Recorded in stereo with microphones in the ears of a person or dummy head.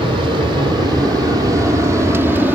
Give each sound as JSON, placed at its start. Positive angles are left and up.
{"t": 0.0, "sound": "an aircraft", "side_deg": -25}